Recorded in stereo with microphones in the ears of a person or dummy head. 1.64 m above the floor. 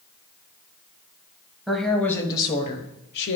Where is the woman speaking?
Centre (ahead or behind), 1.6 m; by 3.4 s 70° left (ahead or behind), 1.2 m.